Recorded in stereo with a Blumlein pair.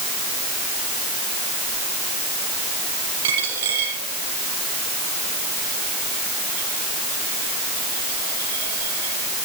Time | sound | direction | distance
3.2 | a dropped coin | 55° right | 6.5 m